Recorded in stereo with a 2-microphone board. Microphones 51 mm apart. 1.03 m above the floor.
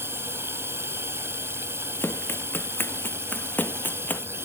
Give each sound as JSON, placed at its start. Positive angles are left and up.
{"t": 0.0, "sound": "running water", "side_deg": -55}
{"t": 2.0, "sound": "running footsteps", "side_deg": 50}